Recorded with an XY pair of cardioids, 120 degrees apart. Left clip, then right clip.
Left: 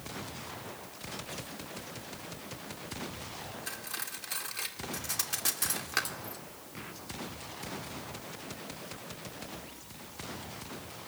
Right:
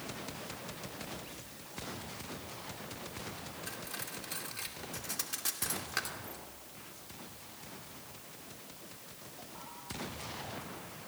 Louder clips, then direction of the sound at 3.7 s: Left 3 dB; 25° left.